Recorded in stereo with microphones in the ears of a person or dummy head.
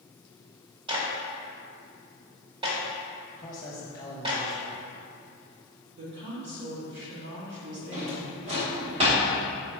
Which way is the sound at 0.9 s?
30° right (ahead or behind).